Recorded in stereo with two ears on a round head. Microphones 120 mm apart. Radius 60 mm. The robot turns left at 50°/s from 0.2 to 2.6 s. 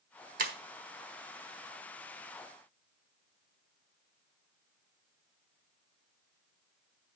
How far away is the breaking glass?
About 1.5 m.